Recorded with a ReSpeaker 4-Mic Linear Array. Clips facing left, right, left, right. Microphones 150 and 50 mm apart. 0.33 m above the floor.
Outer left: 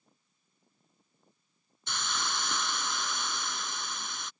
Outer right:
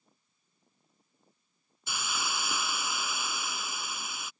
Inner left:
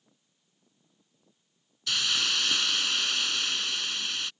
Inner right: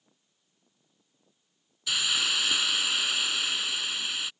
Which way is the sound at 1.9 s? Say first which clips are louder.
Even, inner right 1 dB; 10° right (ahead or behind).